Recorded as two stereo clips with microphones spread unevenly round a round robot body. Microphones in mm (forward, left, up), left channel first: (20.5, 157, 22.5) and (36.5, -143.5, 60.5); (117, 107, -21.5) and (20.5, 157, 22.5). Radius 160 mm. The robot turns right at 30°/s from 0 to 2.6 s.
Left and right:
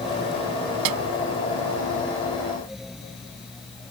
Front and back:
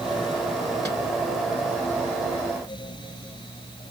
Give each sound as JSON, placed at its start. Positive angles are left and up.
{"t": 0.8, "sound": "a snare drum", "azimuth_deg": -115}